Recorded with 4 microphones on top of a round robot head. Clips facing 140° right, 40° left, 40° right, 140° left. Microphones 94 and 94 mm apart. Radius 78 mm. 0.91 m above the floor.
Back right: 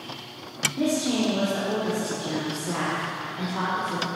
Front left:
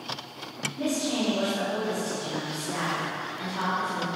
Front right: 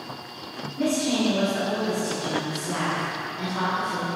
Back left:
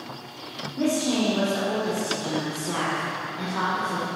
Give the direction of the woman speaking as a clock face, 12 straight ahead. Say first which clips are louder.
Back right 4 dB, even; 5 o'clock.